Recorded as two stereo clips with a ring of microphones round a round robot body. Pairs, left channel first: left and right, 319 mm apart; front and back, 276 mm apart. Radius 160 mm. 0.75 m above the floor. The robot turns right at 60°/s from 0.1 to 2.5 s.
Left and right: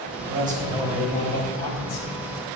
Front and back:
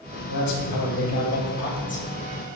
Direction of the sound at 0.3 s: 35° right.